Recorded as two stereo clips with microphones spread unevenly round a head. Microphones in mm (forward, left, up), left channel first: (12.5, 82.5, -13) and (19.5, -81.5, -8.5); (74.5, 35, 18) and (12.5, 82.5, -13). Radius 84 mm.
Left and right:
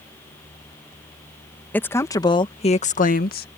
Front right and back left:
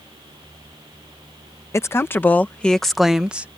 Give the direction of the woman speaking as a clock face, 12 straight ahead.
12 o'clock.